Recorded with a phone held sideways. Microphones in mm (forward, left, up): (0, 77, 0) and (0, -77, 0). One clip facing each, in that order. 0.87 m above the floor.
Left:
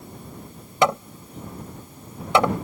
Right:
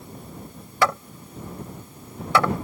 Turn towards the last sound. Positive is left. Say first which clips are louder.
# left 3 dB
turn(degrees=20)  # may be behind; listen again after turning